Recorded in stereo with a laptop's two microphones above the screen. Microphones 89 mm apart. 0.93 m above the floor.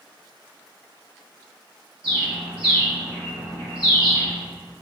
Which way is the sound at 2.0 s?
85° right.